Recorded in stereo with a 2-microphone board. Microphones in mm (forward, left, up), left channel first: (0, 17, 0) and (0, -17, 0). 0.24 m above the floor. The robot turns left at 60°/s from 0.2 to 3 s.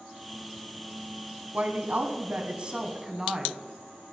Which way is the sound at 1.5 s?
70° right.